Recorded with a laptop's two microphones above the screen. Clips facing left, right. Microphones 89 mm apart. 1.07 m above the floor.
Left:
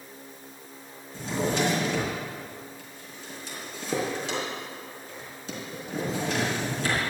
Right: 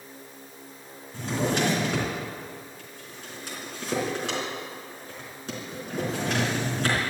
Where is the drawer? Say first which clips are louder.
Right 1 dB; 55° right (ahead or behind), 4 m.